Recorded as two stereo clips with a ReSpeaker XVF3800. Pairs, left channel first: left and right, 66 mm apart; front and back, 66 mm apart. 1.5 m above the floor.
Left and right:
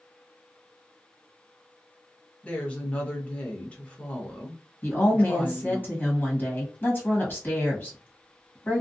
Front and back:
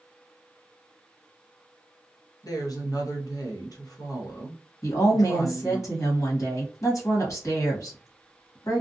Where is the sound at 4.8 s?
30° left, 1.5 m.